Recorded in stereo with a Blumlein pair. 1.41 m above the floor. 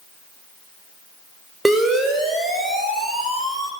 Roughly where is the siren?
Ahead.